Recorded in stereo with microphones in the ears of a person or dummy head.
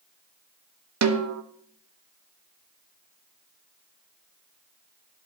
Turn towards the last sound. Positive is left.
turn(degrees=-90)